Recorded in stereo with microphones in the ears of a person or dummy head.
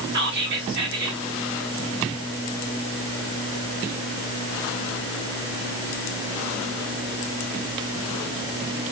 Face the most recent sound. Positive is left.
turn(degrees=-55)  # may be behind; listen again after turning